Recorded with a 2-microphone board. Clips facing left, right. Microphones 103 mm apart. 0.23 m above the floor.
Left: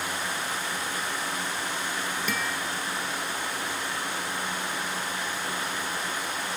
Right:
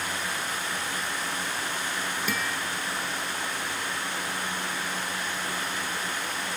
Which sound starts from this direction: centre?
A guitar, at 2.3 s.